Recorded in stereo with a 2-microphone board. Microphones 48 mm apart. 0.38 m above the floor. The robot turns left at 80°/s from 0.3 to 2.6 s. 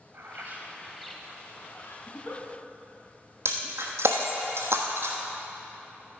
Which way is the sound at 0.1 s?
120° right.